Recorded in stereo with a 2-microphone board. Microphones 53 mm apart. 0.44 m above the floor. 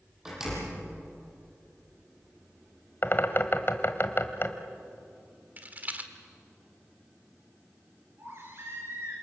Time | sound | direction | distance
0.2 | a door slam | 10° right (ahead or behind) | 9 m
3.0 | a bird | 45° left (ahead or behind) | 1.5 m
5.6 | a rattle | 30° right (ahead or behind) | 1.6 m
8.2 | a baby crying | 55° right (ahead or behind) | 6.5 m